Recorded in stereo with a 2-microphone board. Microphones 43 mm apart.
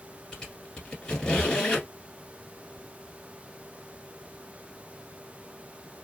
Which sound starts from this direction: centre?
A squeak, at 0.3 s.